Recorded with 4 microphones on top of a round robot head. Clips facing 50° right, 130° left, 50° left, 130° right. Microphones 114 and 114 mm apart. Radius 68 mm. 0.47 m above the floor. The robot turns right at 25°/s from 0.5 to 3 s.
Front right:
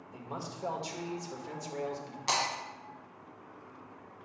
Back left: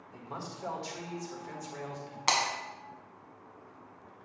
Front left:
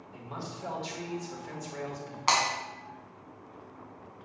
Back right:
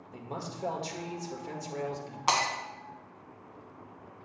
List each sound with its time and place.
0.1 s a man speaking: 120° right, 1.7 m; by 2.2 s 80° right, 1.7 m
2.3 s breaking glass: 150° left, 2 m; by 2.5 s 155° left, 2 m